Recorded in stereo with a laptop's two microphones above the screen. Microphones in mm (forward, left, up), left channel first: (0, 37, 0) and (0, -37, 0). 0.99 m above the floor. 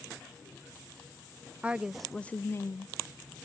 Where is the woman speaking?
20° right (ahead or behind), 0.6 m; by 2.9 s 50° left (ahead or behind), 0.6 m.